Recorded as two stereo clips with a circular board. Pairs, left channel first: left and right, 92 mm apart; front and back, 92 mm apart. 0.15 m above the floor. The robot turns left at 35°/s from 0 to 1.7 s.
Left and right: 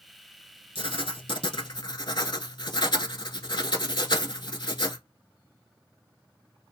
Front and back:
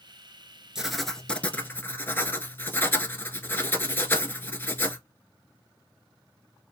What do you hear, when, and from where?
0.8 s writing: 95° left, 0.7 m; by 5.0 s 65° left, 0.7 m